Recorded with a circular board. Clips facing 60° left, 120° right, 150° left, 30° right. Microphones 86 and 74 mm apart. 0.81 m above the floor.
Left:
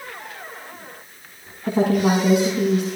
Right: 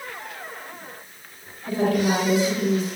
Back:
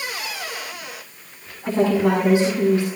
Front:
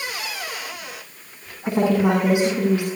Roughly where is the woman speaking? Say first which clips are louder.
Left 3 dB, even; ahead left.